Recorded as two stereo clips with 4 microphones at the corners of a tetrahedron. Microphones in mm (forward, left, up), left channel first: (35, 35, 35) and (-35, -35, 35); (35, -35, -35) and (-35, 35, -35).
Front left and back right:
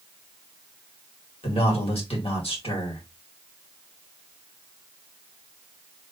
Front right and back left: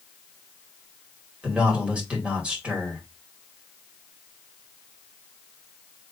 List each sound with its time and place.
1.4 s a man speaking: 60° left, 2 m